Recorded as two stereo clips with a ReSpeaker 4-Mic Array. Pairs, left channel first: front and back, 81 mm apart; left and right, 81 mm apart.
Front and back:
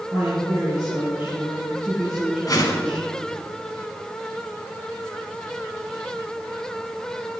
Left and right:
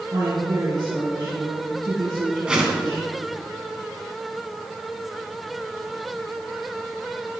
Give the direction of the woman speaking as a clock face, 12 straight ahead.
4 o'clock.